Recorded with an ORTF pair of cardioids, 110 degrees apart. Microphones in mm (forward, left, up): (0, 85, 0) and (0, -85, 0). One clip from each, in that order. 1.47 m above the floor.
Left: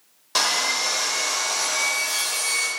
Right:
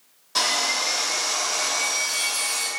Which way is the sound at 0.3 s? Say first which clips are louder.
Left 1 dB; 45° left.